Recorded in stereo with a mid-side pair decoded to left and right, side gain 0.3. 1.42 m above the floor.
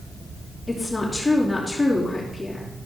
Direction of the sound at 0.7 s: 20° left.